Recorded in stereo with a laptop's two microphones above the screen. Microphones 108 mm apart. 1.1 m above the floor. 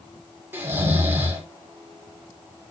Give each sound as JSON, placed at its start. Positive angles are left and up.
{"t": 0.5, "sound": "snoring", "side_deg": -20, "distance_m": 2.5}